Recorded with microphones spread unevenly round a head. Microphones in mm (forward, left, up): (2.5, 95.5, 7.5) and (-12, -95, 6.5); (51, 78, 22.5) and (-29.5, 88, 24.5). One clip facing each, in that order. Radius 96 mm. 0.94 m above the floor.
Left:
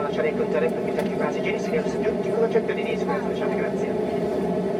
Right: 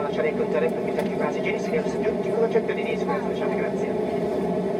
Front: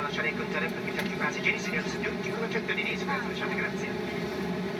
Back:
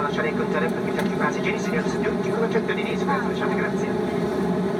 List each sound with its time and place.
0.0 s an aircraft: 170° left